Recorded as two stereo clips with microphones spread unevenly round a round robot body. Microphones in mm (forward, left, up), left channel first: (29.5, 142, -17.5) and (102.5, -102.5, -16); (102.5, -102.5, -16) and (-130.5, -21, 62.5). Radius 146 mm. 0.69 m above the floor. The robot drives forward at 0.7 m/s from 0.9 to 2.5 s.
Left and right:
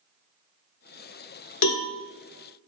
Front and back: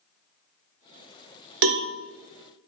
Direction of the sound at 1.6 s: 145° left.